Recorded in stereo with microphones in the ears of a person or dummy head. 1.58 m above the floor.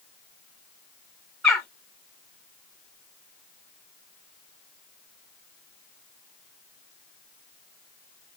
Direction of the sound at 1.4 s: 5° left (ahead or behind).